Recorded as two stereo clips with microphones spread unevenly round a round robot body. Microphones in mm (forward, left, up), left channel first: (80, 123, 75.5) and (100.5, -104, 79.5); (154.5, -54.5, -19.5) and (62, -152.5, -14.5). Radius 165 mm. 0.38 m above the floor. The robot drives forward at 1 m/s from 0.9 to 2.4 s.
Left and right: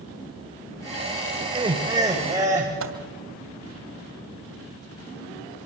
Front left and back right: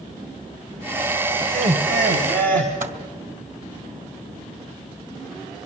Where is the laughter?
145° right, 1.4 m; by 2.7 s 160° right, 2 m.